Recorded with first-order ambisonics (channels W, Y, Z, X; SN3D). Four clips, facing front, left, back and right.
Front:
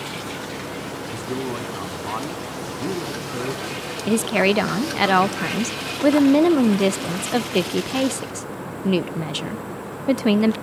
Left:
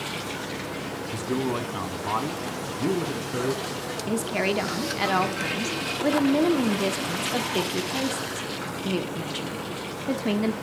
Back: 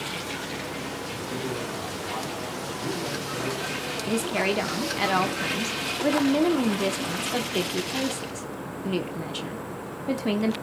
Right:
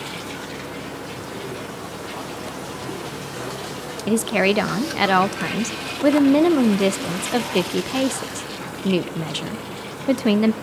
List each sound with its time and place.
1.1 s a man speaking: 50° left, 3 m; by 3.6 s 60° left, 4.5 m
4.1 s a woman speaking: 45° right, 0.8 m